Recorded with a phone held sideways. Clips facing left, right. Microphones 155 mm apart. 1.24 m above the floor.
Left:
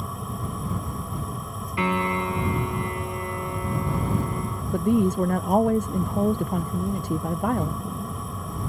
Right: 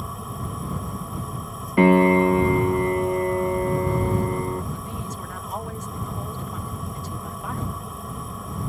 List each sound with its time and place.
0.0 s a fan: centre (ahead or behind)
1.8 s a piano: 50° right (ahead or behind)
4.7 s a woman speaking: 60° left (ahead or behind)